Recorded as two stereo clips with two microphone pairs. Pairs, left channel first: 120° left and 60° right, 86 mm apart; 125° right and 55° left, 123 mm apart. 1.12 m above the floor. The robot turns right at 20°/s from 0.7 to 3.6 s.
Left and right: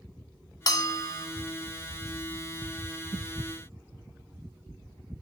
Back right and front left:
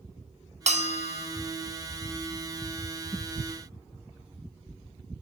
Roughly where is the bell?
Left.